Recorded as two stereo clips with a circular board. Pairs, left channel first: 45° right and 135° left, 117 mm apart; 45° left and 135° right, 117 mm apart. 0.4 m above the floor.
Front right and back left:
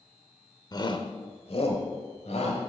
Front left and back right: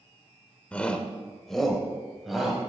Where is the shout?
25° right, 0.9 m; by 2.6 s 45° right, 2.0 m.